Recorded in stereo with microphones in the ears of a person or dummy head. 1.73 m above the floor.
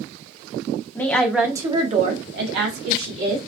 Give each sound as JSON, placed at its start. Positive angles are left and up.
{"t": 0.9, "sound": "a woman speaking", "side_deg": 10, "distance_m": 0.6}